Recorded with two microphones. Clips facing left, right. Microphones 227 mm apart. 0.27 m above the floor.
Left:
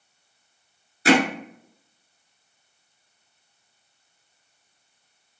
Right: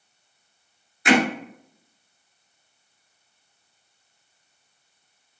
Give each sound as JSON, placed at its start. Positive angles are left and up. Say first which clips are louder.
{"t": 1.1, "sound": "hammering", "louder": "left 1 dB", "side_deg": 35, "distance_m": 1.4}